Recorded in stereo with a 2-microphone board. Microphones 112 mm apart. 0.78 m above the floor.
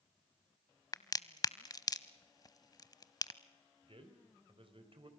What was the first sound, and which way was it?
A crack, 35° left (ahead or behind).